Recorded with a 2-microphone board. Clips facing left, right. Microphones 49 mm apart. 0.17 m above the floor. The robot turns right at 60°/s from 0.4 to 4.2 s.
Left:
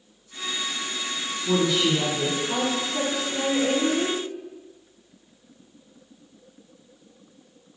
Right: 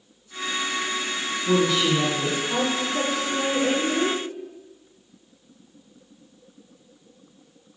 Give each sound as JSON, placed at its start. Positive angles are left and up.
{"t": 1.4, "sound": "a woman speaking", "azimuth_deg": -15, "distance_m": 1.4}